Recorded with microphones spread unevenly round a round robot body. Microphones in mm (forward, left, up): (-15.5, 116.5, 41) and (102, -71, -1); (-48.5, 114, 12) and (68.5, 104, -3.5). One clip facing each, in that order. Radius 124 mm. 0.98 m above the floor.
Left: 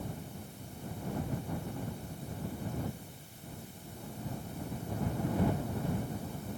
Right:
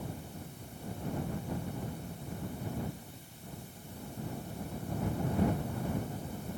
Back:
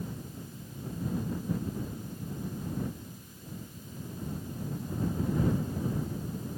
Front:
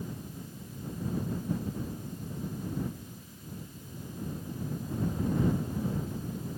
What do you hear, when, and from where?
Only background noise.